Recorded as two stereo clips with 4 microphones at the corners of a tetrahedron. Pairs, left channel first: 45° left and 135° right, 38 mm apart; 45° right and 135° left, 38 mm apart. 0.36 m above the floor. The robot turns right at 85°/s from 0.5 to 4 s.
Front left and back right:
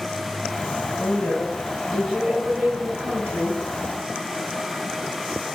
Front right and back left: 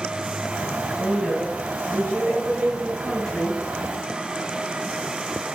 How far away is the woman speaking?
About 2.5 m.